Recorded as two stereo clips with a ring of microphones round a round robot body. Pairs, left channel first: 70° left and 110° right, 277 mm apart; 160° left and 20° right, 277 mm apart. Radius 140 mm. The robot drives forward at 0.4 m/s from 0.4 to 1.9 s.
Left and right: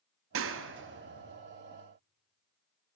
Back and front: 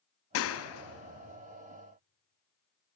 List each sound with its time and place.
0.3 s a clap: 160° right, 0.8 m; by 1.4 s 165° right, 1.2 m